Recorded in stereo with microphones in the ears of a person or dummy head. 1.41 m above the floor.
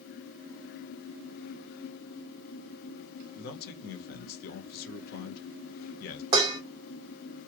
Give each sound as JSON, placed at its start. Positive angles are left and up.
{"t": 3.4, "sound": "a man speaking", "side_deg": 60, "distance_m": 0.9}
{"t": 6.3, "sound": "dishes clattering", "side_deg": -20, "distance_m": 0.7}